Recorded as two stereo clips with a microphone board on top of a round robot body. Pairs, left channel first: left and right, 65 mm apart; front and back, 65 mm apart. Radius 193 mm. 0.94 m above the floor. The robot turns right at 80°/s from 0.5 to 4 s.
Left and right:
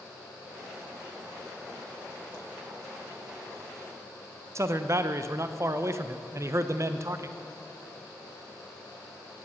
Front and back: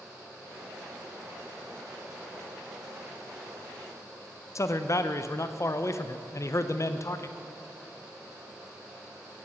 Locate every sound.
4.5 s a man speaking: 45° right, 0.6 m